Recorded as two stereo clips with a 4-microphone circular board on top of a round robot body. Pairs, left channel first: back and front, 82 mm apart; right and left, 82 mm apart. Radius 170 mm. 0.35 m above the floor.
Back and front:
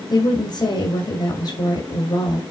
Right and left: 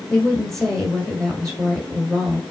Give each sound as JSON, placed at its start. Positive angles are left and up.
{"t": 0.1, "sound": "a woman speaking", "azimuth_deg": -175, "distance_m": 1.9}